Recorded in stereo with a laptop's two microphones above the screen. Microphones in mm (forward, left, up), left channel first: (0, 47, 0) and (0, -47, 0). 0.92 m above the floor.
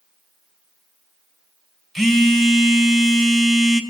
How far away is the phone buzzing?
About 0.5 m.